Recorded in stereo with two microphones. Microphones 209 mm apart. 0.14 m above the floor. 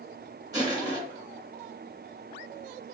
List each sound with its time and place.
0.5 s crushing: 20° right (ahead or behind), 1.7 m